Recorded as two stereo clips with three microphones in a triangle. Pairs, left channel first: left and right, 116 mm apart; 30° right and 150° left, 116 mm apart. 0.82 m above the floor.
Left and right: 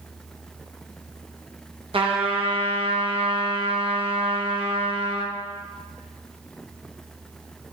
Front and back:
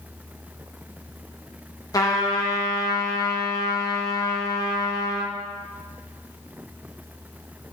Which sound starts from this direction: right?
A trumpet, at 1.9 s.